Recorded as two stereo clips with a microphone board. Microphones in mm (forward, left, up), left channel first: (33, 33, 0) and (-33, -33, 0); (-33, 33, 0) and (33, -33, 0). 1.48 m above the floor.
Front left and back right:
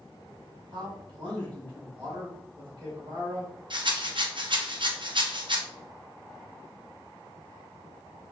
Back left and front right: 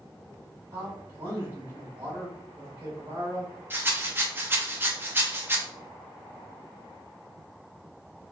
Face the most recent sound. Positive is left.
turn(degrees=-110)